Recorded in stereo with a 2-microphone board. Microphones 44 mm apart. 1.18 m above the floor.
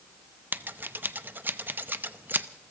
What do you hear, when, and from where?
0.5 s scissors: 45° right (ahead or behind), 0.6 m